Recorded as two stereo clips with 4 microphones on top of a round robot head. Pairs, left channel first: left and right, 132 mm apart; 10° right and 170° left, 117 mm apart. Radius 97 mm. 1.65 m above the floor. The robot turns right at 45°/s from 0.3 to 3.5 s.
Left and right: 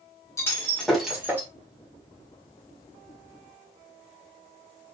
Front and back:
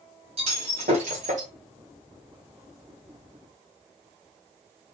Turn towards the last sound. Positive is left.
turn(degrees=-65)